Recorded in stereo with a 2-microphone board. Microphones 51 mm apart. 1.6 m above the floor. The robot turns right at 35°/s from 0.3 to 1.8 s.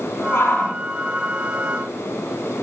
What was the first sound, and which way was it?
A shout, 55° left (ahead or behind).